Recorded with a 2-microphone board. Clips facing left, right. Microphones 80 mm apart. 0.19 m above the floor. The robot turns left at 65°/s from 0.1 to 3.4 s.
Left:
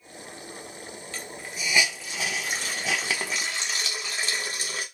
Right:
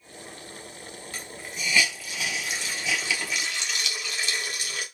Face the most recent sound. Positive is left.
turn(degrees=35)  # may be behind; listen again after turning